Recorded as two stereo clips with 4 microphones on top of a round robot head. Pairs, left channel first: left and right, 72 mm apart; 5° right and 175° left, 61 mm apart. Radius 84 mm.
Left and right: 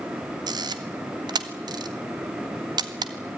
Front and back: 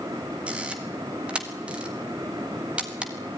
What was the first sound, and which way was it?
A camera shutter, 110° right.